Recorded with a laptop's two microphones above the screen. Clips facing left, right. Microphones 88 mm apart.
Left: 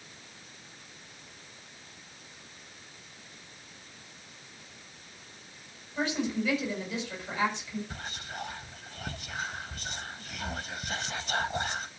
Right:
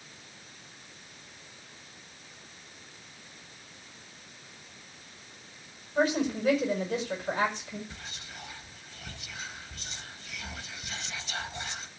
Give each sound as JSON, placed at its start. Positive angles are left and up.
{"t": 6.0, "sound": "a woman speaking", "side_deg": -40, "distance_m": 7.0}
{"t": 7.9, "sound": "whispering", "side_deg": 50, "distance_m": 1.1}